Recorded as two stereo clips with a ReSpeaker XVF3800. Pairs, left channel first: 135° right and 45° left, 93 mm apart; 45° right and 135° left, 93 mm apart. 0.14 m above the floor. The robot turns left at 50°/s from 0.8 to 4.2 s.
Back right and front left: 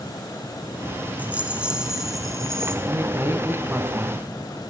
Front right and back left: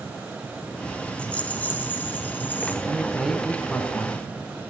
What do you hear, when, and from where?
1.2 s a rattle: 5° left, 1.1 m; by 2.8 s 70° right, 1.1 m
2.9 s a man speaking: 65° left, 1.1 m; by 4.2 s 5° right, 1.1 m